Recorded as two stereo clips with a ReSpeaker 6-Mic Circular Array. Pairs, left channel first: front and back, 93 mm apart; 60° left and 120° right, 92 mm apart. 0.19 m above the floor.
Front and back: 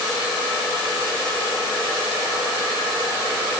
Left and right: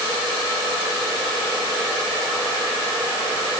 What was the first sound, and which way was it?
Only background noise.